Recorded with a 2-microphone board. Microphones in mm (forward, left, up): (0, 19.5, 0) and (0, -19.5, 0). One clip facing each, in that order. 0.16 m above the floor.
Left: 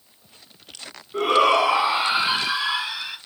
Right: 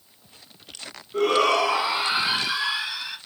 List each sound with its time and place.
1.1 s a shout: 15° left (ahead or behind), 1.3 m; by 3.2 s 25° left (ahead or behind), 2 m